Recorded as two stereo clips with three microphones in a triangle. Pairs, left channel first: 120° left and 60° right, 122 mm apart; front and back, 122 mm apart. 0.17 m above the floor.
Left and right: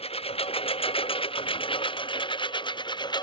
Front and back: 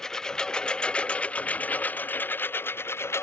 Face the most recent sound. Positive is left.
turn(degrees=70)